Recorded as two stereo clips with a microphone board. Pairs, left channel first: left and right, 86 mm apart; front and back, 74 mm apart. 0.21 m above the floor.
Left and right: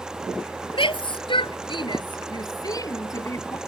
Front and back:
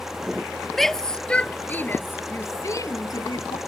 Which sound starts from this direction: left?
A shout, at 0.7 s.